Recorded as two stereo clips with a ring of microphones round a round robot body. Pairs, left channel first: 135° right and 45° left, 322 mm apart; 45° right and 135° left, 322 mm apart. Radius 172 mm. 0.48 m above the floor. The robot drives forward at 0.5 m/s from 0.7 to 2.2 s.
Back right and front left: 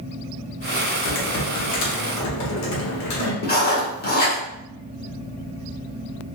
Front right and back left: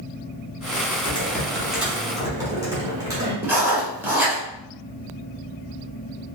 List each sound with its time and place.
1.1 s typing on a keyboard: 115° right, 0.8 m; by 3.3 s 145° right, 1.1 m
3.4 s writing: 150° right, 1.2 m